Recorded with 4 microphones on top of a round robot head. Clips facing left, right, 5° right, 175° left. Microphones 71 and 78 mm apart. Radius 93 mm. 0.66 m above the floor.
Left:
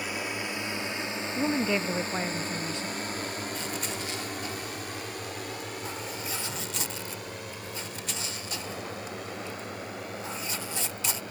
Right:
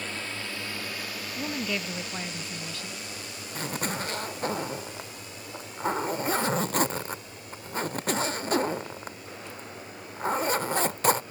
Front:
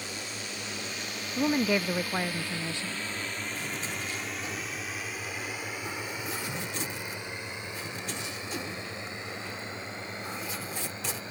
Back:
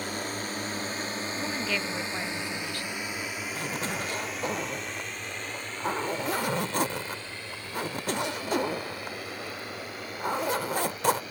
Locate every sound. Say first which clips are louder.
0.0 s a drone: left 3 dB, back 6 dB; 165° left; by 11.3 s 60° left
1.4 s a woman speaking: left 5 dB, front 8 dB; 50° left
3.5 s a zipper: right 2 dB, back 4 dB; 130° right